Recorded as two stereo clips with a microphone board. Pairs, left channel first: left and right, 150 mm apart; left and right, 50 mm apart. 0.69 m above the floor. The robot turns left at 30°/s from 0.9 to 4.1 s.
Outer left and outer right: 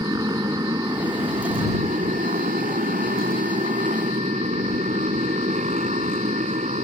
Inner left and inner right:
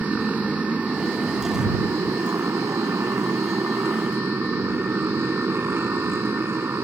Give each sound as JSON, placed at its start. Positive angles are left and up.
{"t": 0.0, "sound": "a motorcycle", "azimuth_deg": -25}